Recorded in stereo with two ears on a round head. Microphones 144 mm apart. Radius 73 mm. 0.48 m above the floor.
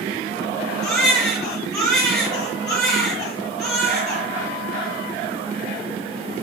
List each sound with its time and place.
0.8 s a baby crying: 5° left (ahead or behind), 5 m